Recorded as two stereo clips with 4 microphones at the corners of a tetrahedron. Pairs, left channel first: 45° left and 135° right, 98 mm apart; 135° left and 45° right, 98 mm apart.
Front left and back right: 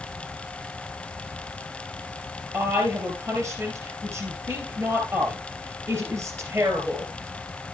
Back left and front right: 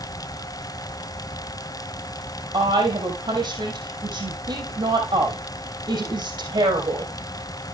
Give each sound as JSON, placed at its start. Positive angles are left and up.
{"t": 2.5, "sound": "a woman speaking", "azimuth_deg": -75, "distance_m": 3.0}